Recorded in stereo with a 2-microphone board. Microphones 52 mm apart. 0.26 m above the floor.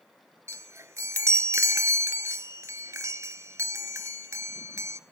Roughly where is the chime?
Right.